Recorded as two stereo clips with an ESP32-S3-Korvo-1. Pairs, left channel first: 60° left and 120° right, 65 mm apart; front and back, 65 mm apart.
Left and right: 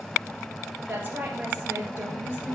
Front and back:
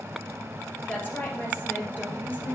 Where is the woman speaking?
60° right, 3 m.